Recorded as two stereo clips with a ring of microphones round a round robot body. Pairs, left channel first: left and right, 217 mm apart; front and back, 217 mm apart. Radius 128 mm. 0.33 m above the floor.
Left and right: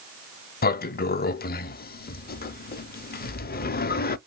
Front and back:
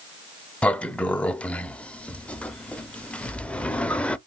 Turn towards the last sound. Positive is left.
turn(degrees=80)